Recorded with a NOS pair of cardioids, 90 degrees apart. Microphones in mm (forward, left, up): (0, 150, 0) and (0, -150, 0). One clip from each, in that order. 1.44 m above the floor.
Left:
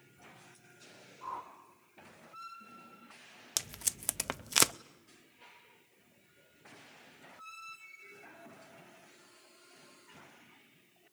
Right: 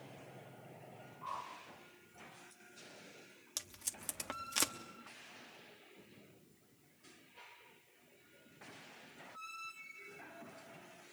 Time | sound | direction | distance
1.2 | a whoosh | 60° left | 3 m
3.6 | tape being pulled | 45° left | 0.6 m